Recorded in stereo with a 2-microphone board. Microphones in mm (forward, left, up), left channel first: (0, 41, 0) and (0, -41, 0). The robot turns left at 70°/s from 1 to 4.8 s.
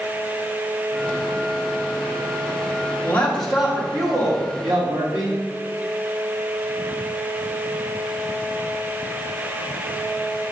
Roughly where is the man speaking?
Ahead left.